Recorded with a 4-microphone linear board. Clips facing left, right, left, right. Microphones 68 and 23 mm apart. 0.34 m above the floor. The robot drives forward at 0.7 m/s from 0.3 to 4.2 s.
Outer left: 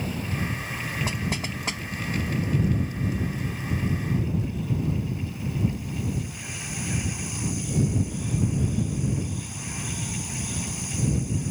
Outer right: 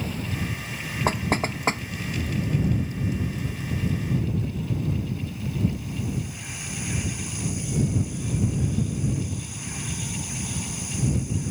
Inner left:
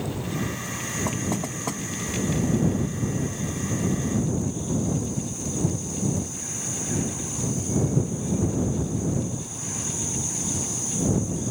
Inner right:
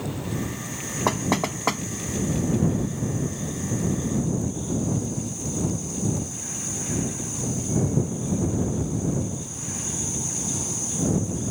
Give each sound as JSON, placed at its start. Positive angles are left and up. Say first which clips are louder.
{"t": 1.1, "sound": "knocking", "louder": "outer right 5 dB, inner right 9 dB", "side_deg": -50}